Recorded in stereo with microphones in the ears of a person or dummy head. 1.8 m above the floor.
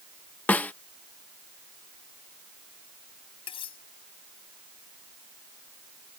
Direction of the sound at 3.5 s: 25° left (ahead or behind).